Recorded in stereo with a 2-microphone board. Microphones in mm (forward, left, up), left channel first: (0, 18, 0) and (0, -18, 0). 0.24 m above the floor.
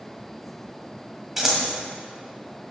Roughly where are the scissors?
Centre.